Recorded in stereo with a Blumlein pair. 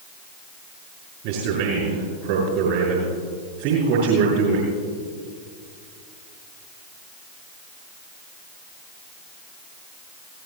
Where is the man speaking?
45° right, 6 m.